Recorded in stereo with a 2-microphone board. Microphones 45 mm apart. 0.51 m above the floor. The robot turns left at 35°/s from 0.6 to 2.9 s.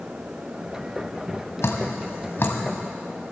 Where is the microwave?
I don't hear a microwave.